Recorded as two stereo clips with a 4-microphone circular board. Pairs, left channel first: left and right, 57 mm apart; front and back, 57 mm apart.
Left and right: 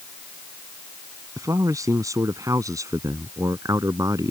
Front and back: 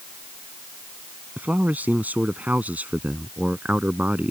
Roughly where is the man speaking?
Behind right.